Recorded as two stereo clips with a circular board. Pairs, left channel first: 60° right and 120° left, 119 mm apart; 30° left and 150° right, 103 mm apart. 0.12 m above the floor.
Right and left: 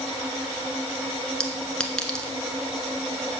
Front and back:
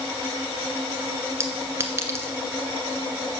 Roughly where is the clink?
Behind right.